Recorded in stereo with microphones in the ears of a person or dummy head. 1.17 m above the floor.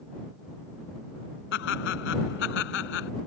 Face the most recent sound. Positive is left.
turn(degrees=70)  # may be behind; listen again after turning